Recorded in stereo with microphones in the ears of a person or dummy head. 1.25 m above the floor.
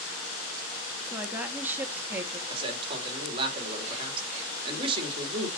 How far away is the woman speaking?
About 1.7 m.